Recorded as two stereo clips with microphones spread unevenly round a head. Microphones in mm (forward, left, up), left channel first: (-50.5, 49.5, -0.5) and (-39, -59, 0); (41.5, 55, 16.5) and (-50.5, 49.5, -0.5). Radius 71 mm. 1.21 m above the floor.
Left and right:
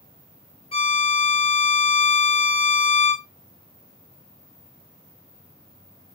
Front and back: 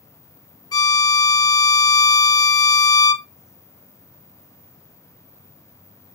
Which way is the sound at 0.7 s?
45° left.